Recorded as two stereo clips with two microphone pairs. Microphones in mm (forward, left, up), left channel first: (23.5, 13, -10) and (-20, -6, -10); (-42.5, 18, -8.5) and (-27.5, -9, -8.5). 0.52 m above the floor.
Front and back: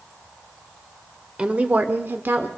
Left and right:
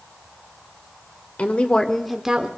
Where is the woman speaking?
140° left, 1.3 m; by 2.5 s 125° right, 1.2 m.